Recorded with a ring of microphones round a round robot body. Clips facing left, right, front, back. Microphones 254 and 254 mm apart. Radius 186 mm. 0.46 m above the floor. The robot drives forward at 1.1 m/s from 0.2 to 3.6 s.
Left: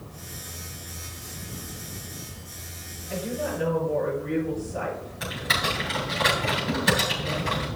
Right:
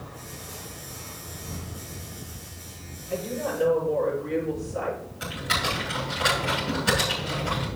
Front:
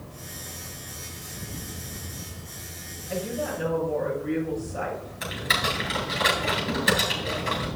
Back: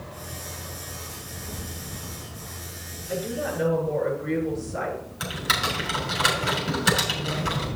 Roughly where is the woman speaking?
Behind.